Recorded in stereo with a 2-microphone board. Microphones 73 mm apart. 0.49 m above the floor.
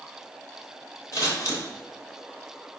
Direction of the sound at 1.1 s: 50° left (ahead or behind).